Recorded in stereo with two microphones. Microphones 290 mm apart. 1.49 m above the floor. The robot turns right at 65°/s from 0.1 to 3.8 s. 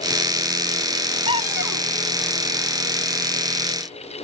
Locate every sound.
1.3 s a cupboard door: 65° left; by 1.9 s 105° left